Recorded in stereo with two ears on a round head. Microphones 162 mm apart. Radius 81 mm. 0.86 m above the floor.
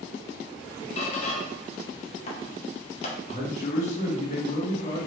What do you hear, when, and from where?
1.0 s a squeak: 35° left (ahead or behind), 0.8 m
3.3 s a man speaking: 40° left (ahead or behind), 1.4 m